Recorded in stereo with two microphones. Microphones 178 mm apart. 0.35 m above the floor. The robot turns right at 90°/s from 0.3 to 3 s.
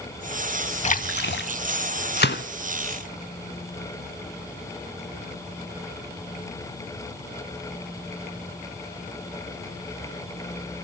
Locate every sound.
0.8 s a splash: 40° left, 0.5 m; by 1.5 s 100° left, 0.5 m
2.2 s a gunshot: 65° left (ahead or behind), 0.6 m; by 2.4 s 75° left (ahead or behind), 0.6 m